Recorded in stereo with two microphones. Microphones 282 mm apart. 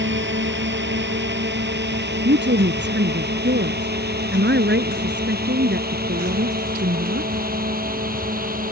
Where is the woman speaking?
40° right (ahead or behind).